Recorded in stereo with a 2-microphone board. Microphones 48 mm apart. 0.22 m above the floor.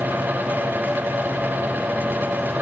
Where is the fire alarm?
I don't hear a fire alarm.